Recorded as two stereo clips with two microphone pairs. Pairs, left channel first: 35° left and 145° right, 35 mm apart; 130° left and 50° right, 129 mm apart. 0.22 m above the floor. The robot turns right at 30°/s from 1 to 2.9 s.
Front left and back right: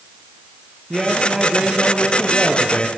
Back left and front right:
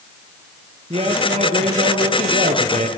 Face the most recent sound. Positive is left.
turn(degrees=-25)